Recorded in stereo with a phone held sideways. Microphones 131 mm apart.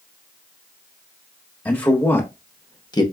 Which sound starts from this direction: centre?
A man speaking, at 1.6 s.